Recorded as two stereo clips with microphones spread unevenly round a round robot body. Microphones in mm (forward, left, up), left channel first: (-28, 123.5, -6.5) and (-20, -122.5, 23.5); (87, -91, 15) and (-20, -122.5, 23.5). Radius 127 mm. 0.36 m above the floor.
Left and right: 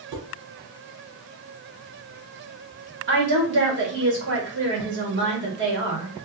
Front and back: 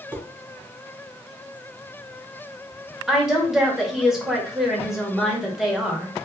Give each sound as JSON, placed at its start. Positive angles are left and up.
{"t": 0.1, "sound": "dishes clattering", "azimuth_deg": -90, "distance_m": 2.5}
{"t": 3.1, "sound": "a woman speaking", "azimuth_deg": -75, "distance_m": 1.6}